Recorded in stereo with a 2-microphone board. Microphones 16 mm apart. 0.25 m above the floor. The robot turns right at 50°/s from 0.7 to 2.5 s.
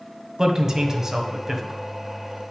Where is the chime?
I don't hear a chime.